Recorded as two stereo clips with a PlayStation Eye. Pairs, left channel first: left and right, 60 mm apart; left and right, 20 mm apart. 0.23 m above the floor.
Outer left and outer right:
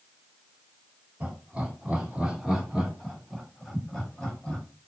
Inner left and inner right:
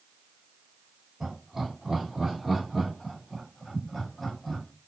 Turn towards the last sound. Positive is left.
turn(degrees=20)  # may be behind; listen again after turning